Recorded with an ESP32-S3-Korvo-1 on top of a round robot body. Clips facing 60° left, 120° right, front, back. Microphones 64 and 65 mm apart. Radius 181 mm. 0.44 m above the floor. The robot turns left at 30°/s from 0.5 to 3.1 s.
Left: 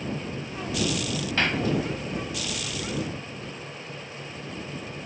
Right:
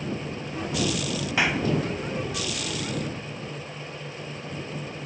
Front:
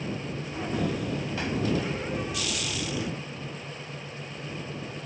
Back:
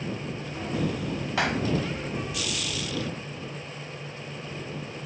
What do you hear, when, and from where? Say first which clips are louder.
1.4 s a clap: right 1 dB, back 5 dB; 160° left; by 1.7 s 155° left